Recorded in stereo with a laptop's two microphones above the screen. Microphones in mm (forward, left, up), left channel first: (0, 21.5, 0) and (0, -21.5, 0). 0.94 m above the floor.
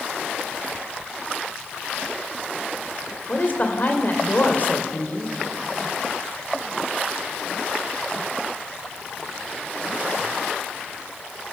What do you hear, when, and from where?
3.3 s a woman speaking: 40° left (ahead or behind), 3 m